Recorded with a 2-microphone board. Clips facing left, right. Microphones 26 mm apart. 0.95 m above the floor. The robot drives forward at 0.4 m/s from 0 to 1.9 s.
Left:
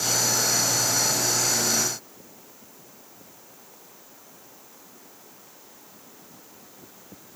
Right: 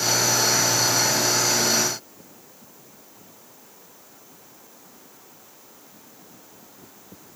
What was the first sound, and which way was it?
Only background noise.